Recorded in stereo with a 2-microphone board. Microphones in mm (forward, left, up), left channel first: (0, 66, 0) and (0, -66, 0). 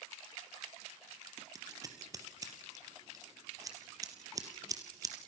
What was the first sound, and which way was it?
Scissors, 25° right (ahead or behind).